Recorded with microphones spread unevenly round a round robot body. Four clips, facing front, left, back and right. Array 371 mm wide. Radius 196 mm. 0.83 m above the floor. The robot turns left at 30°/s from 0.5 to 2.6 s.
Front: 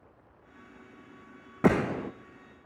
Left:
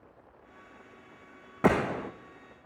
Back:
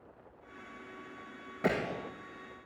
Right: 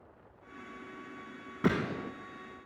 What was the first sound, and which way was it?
A gunshot, 10° left.